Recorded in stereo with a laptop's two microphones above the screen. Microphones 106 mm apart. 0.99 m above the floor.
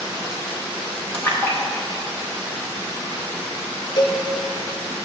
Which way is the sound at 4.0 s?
50° left (ahead or behind).